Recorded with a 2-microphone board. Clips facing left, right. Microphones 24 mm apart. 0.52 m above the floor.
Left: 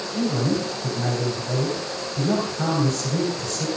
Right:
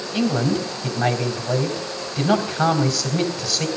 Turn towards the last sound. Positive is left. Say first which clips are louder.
# right 3 dB
turn(degrees=-50)  # may be behind; listen again after turning